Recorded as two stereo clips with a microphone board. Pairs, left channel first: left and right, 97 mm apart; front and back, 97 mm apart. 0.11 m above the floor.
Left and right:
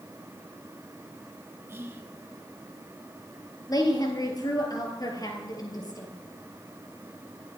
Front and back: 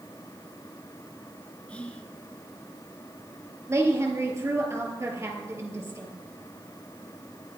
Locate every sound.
1.7 s whispering: 60° right, 1.1 m
3.7 s a woman speaking: 125° left, 2.0 m